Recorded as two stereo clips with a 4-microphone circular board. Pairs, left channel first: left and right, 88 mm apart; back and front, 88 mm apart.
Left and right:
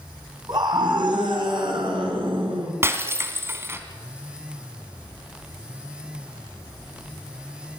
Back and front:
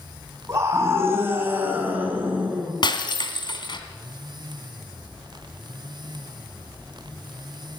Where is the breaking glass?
150° right, 2 m.